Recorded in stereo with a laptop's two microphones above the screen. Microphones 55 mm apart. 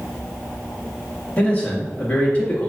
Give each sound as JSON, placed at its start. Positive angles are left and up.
{"t": 1.4, "sound": "a man speaking", "side_deg": 25, "distance_m": 1.8}